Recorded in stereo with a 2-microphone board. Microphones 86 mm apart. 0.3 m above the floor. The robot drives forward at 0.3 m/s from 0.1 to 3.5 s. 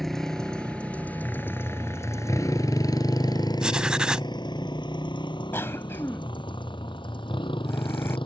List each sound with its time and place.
0.0 s a motorcycle: centre (ahead or behind); by 8.3 s 70° left (ahead or behind)
3.6 s writing: 10° right (ahead or behind)
5.5 s a cough: 30° left (ahead or behind)